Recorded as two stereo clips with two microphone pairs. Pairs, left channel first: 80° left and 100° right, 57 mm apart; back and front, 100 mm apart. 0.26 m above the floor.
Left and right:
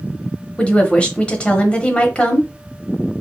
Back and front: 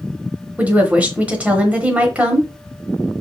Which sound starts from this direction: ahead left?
A woman speaking, at 0.6 s.